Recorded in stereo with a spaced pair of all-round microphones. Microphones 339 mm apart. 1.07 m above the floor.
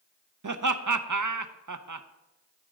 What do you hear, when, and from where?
0.4 s laughter: 60° right (ahead or behind), 0.6 m